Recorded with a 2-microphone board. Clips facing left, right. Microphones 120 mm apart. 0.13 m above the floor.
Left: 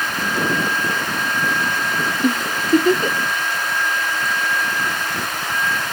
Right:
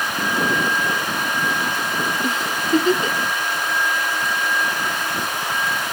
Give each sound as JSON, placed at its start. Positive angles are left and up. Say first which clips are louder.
{"t": 2.2, "sound": "a giggle", "louder": "left 3 dB", "side_deg": 45, "distance_m": 1.2}